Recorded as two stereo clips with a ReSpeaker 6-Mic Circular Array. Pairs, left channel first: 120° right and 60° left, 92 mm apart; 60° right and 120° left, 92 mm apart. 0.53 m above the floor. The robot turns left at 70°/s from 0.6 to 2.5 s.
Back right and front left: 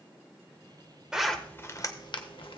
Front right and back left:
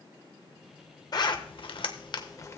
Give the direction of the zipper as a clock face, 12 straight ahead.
1 o'clock.